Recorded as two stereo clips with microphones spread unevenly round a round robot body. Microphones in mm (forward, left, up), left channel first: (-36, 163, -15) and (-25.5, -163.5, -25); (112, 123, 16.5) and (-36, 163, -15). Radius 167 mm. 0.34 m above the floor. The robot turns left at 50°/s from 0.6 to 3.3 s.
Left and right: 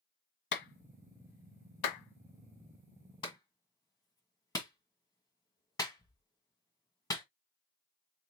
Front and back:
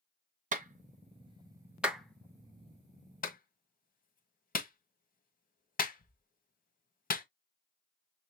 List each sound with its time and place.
0.5 s a clap: 145° left, 1.7 m; by 7.2 s 10° left, 1.7 m